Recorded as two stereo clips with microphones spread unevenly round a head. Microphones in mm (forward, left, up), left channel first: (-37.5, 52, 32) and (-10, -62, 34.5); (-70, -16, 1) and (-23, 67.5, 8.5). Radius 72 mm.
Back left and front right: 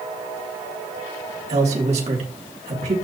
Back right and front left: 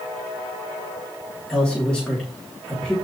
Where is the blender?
No blender in this recording.